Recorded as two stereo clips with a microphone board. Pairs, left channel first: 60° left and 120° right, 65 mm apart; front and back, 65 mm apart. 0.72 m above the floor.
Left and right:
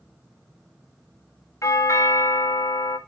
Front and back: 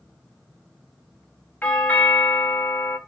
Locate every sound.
1.6 s a doorbell: 60° left, 2 m